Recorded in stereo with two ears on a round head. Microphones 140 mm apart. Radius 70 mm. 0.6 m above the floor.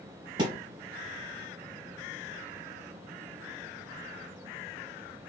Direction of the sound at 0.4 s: 30° right (ahead or behind).